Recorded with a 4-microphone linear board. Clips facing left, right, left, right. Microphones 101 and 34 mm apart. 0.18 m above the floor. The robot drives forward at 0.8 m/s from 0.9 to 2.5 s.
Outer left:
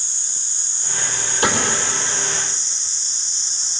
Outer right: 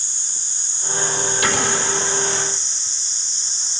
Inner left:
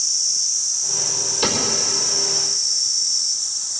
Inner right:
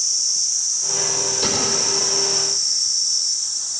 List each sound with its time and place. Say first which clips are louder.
1.4 s a cupboard door: outer left 3 dB, inner left 2 dB; 35° left (ahead or behind), 4.5 m